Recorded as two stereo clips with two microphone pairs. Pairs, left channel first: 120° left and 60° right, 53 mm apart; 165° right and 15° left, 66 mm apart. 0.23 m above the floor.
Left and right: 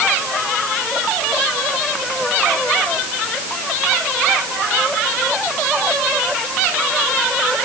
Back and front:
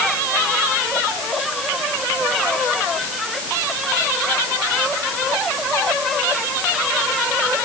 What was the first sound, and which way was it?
Only background noise.